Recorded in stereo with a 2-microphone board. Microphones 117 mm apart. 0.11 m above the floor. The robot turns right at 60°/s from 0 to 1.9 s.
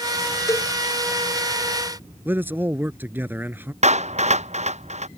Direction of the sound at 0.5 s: 30° left (ahead or behind).